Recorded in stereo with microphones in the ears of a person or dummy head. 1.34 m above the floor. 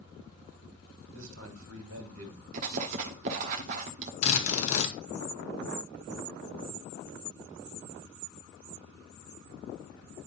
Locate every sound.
1.1 s a man speaking: 80° right, 2.5 m
2.5 s writing: 45° right (ahead or behind), 1.1 m
4.2 s a drill: 45° left (ahead or behind), 2 m